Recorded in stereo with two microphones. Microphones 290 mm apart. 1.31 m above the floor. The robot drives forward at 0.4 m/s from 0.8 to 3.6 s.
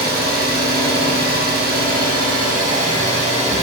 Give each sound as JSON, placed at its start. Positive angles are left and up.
{"t": 0.0, "sound": "an engine running", "side_deg": -35, "distance_m": 0.9}